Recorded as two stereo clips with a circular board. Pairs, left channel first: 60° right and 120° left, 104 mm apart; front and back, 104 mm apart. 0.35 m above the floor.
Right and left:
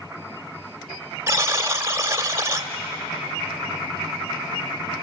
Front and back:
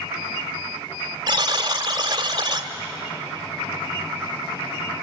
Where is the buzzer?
170° left, 1.3 m.